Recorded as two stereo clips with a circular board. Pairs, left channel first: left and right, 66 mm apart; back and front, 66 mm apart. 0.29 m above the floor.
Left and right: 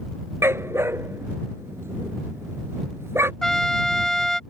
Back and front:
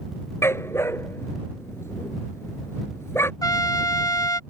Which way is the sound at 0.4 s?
135° right.